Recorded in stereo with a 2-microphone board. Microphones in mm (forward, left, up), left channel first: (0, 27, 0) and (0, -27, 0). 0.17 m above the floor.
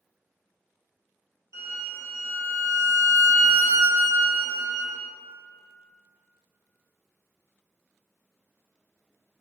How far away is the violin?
About 0.9 m.